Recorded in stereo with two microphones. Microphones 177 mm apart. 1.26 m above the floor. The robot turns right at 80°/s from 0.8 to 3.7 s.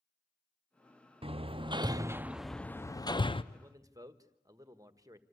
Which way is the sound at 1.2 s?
30° right (ahead or behind).